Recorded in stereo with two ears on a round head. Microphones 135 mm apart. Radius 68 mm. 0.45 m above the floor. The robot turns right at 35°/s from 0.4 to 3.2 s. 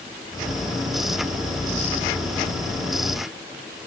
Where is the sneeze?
No sneeze in this recording.